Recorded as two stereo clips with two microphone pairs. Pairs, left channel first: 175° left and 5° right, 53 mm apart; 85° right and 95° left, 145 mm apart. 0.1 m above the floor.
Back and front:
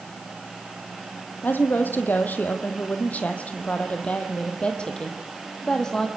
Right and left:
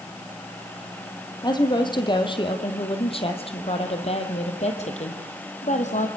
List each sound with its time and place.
1.4 s a woman speaking: 140° right, 4 m; by 6.1 s 105° right, 4.5 m